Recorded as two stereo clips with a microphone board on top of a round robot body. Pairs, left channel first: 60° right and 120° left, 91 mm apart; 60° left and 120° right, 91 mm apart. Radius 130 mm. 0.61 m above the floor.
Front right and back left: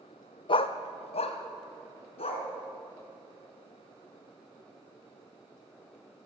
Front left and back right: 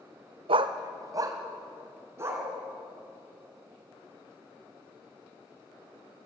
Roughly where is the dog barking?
Right.